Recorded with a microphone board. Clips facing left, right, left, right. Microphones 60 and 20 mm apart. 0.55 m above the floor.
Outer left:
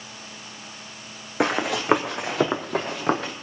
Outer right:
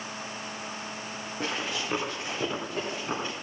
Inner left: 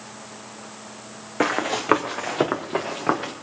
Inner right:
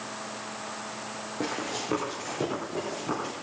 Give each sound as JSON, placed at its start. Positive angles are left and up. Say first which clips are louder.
{"t": 1.4, "sound": "running footsteps", "louder": "outer left 10 dB, inner left 10 dB", "side_deg": 75, "distance_m": 2.0}